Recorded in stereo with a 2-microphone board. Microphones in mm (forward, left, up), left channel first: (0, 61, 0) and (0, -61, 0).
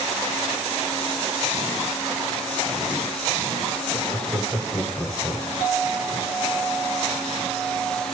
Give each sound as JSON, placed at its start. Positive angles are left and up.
{"t": 3.9, "sound": "laughter", "side_deg": -5, "distance_m": 1.2}
{"t": 5.6, "sound": "a clink", "side_deg": -20, "distance_m": 2.0}